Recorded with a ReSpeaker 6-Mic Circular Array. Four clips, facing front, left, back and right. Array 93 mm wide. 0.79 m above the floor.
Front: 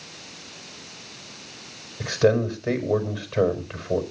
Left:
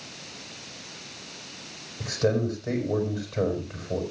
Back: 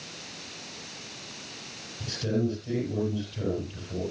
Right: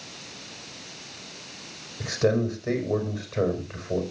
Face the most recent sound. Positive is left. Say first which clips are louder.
# right 2 dB, front 9 dB
turn(degrees=-15)